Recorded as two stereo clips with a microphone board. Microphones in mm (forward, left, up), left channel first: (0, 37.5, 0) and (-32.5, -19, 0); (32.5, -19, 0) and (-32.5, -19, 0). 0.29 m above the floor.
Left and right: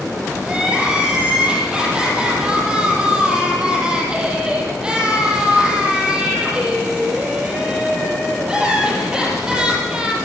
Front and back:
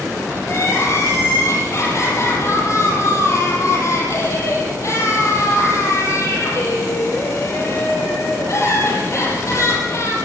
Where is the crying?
45° right, 7 m.